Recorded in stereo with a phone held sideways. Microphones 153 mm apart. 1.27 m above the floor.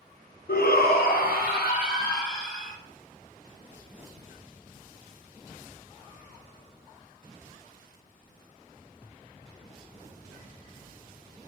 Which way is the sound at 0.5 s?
80° left.